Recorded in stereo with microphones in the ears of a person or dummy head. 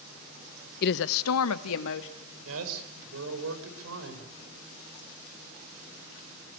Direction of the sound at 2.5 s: 80° right.